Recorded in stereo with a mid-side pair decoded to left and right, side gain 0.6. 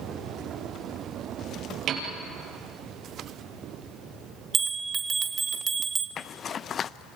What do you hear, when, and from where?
1.9 s a piano: 55° right, 5 m
4.5 s a bell: 35° right, 2.0 m
6.2 s a zipper: 40° left, 0.5 m